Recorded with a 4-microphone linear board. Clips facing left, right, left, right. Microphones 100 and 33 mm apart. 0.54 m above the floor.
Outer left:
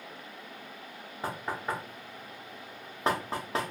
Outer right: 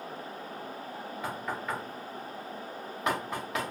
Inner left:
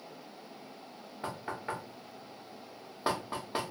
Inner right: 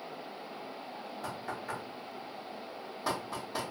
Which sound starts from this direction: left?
Knocking, at 1.2 s.